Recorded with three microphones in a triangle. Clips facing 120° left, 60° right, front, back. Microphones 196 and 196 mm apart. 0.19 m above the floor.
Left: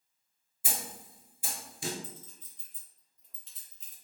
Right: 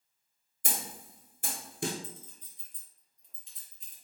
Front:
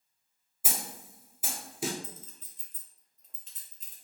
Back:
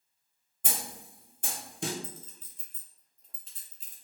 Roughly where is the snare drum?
Right.